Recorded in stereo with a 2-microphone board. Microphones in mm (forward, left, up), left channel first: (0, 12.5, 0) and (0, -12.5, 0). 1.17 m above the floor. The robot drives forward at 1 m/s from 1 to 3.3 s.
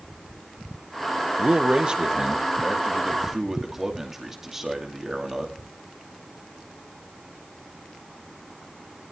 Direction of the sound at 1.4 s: 50° right (ahead or behind).